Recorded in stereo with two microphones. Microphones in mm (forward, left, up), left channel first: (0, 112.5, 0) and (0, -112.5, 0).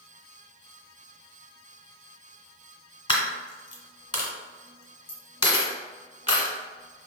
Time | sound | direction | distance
3.1 | a dropped coin | 25° left (ahead or behind) | 1.5 m